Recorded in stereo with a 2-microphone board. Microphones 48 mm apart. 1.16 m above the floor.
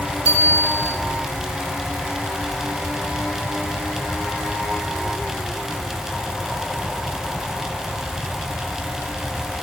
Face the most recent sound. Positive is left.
turn(degrees=70)  # may be behind; listen again after turning